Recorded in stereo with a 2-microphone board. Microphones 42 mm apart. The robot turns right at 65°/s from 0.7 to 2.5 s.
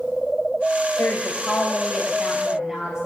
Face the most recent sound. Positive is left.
turn(degrees=-155)